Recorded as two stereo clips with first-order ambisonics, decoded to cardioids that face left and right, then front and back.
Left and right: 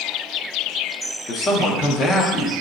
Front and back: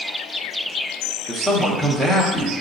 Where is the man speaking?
80° left, 0.6 m.